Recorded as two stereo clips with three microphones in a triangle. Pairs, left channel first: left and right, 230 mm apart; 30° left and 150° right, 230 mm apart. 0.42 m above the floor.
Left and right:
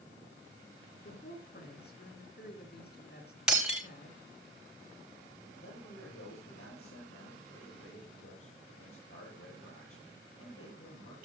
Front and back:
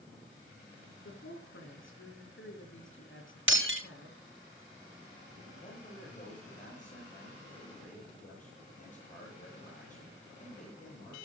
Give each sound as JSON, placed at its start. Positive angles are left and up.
{"t": 1.0, "sound": "a woman speaking", "azimuth_deg": 50, "distance_m": 4.5}
{"t": 3.5, "sound": "breaking glass", "azimuth_deg": -175, "distance_m": 6.5}
{"t": 5.6, "sound": "a man speaking", "azimuth_deg": 85, "distance_m": 9.0}